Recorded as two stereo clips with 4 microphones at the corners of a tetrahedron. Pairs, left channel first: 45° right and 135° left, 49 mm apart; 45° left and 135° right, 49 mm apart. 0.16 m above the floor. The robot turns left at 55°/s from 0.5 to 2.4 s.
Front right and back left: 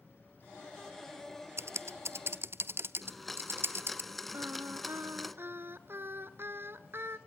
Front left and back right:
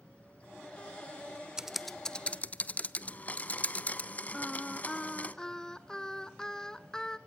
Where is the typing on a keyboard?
150° left, 0.5 m; by 4.0 s 100° left, 0.5 m.